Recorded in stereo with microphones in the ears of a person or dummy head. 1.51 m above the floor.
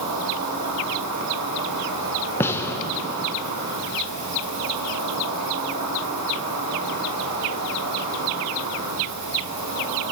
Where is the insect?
60° right (ahead or behind), 3.5 m.